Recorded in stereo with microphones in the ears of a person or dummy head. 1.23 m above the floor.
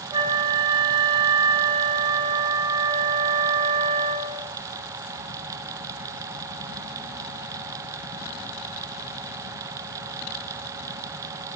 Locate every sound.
0.1 s a flute: 25° right (ahead or behind), 1.0 m